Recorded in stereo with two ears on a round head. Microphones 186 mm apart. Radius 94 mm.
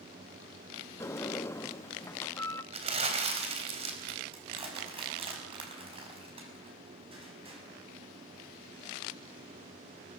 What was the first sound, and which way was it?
A sliding door, 15° left (ahead or behind).